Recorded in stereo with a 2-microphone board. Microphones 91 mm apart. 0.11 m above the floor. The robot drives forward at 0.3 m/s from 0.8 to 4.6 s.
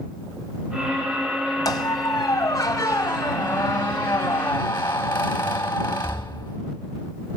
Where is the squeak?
40° left (ahead or behind), 1.6 m; by 6.6 s 25° left (ahead or behind), 2.5 m.